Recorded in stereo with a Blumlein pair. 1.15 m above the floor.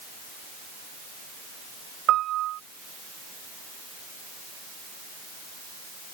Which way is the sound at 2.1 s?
35° right.